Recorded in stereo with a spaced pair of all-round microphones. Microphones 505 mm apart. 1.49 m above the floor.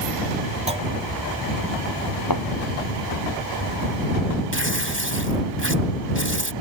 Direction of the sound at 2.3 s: 40° left (ahead or behind).